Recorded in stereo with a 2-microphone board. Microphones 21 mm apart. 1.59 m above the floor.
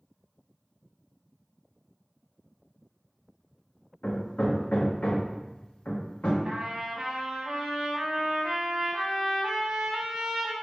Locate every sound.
4.0 s hammering: 80° left, 0.7 m
6.5 s a trumpet: 55° right (ahead or behind), 0.9 m